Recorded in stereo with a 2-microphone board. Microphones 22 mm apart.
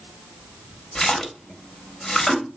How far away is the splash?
About 0.6 m.